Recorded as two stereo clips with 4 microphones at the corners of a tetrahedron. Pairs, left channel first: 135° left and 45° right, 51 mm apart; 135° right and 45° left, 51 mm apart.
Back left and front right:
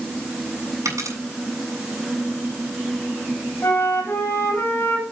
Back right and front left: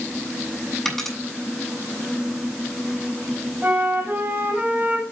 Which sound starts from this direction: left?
A flute, at 3.6 s.